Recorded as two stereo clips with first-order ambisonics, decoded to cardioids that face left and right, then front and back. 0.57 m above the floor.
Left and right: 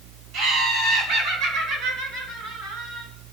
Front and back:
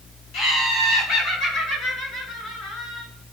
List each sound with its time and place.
0.3 s laughter: 35° right, 3 m; by 3.1 s 40° right, 7 m